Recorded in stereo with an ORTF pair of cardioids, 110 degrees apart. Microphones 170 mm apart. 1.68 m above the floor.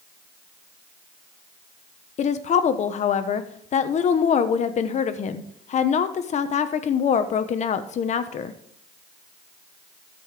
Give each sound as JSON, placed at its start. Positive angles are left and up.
{"t": 2.2, "sound": "a woman speaking", "azimuth_deg": 50, "distance_m": 1.1}